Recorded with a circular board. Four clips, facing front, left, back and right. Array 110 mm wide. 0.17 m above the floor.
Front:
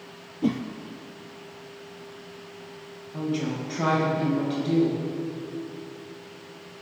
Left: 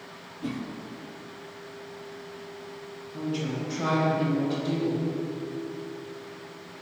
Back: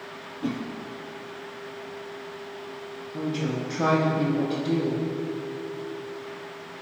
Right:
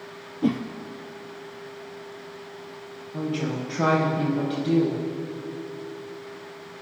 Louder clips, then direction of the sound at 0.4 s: Right 9 dB, front 4 dB; 60° right.